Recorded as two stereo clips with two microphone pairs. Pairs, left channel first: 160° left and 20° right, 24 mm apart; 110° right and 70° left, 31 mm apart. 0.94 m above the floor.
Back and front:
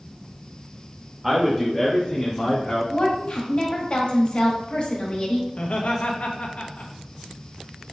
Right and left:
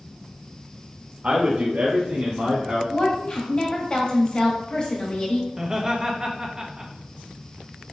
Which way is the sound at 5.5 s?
135° left.